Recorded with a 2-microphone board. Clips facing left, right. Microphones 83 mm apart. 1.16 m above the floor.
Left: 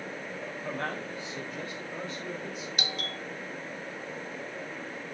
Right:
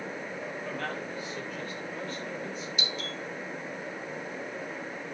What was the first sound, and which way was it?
A man speaking, 30° left (ahead or behind).